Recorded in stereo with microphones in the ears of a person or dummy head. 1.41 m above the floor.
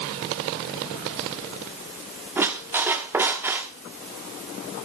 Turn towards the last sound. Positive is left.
turn(degrees=-10)  # may be behind; listen again after turning